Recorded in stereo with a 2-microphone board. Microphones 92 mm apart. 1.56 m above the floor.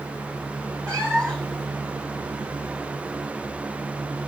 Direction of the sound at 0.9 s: 10° left (ahead or behind).